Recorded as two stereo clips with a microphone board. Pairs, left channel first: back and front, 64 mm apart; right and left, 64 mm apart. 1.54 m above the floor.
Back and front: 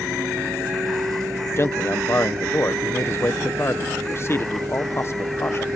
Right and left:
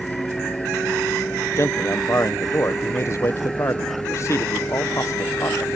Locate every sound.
0.0 s a vehicle: 25° right; by 5.8 s 20° right
1.6 s a man speaking: 135° right